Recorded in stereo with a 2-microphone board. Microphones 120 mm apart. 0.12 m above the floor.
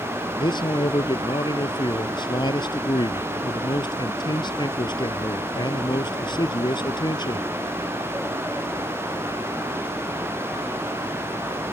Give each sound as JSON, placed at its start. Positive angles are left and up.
{"t": 0.4, "sound": "a man speaking", "side_deg": 40}